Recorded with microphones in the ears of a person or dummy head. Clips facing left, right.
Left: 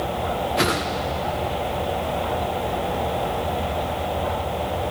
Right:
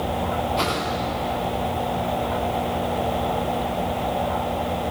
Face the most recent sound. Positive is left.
turn(degrees=25)  # may be behind; listen again after turning